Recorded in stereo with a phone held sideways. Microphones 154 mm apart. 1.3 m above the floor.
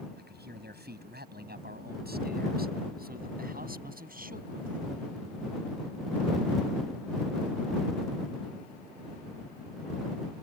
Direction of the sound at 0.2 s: 80° right.